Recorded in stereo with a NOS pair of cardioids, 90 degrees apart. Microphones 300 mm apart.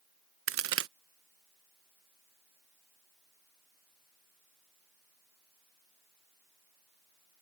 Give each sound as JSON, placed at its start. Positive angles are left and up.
{"t": 0.5, "sound": "a crack", "azimuth_deg": -55}